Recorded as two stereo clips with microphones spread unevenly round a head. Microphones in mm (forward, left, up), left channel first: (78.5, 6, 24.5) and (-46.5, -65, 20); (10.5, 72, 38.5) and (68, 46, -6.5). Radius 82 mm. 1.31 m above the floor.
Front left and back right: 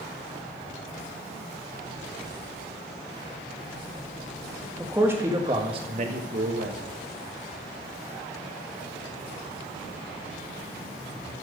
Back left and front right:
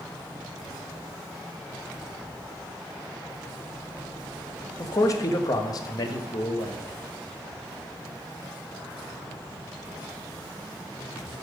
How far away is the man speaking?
About 1.6 m.